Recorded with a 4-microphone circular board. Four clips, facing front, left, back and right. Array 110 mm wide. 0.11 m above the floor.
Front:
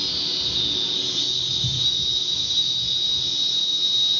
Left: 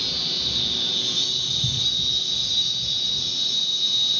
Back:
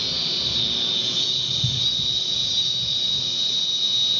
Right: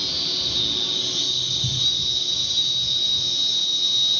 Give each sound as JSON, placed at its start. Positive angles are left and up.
{"t": 0.0, "sound": "an insect", "azimuth_deg": -165, "distance_m": 1.9}